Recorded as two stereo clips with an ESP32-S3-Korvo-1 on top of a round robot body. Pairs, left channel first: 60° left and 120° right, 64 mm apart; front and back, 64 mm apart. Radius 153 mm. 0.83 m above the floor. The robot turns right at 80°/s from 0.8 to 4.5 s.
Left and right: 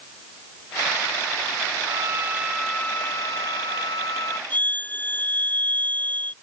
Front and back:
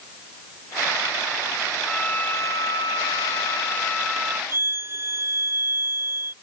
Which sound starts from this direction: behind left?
A violin, at 4.5 s.